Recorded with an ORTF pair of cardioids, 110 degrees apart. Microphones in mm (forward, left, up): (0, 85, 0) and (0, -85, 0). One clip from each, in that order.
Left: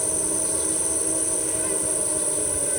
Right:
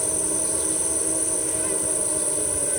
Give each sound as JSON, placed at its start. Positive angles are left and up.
{"t": 0.0, "sound": "an insect", "azimuth_deg": 0}